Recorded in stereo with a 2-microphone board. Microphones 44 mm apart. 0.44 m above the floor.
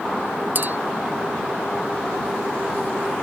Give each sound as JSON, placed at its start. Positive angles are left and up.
{"t": 0.6, "sound": "a clink", "side_deg": -50}